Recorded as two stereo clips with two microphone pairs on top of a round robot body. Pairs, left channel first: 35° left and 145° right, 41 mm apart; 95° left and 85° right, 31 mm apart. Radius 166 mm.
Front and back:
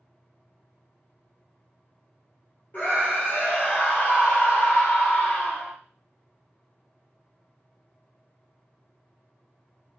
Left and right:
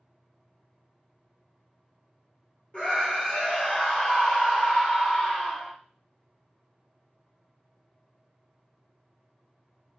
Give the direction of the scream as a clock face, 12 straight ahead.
10 o'clock.